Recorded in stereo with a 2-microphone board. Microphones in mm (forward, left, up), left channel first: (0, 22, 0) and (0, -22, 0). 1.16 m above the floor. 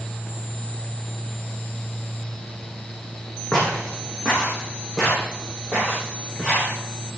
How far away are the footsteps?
About 4.5 m.